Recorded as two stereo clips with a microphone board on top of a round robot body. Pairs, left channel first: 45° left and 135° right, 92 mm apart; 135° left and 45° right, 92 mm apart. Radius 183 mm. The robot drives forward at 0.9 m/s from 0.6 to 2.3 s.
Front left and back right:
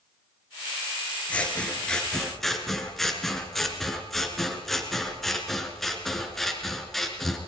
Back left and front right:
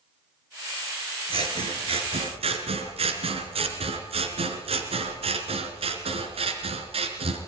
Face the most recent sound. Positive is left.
turn(degrees=-40)